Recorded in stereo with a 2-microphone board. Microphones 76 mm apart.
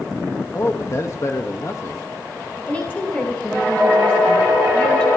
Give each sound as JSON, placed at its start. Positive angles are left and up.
{"t": 0.5, "sound": "a man speaking", "side_deg": 40, "distance_m": 1.1}
{"t": 2.7, "sound": "a woman speaking", "side_deg": 20, "distance_m": 8.0}